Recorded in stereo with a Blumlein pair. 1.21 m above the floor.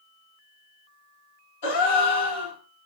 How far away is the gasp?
About 1.9 m.